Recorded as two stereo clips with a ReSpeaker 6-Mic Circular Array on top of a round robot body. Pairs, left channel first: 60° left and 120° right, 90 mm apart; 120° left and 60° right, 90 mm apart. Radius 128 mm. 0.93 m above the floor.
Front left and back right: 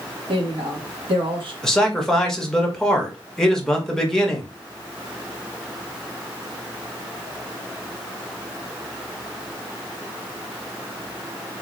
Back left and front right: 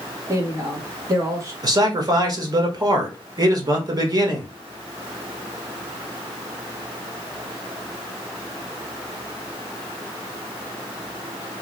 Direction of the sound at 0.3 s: 115° right.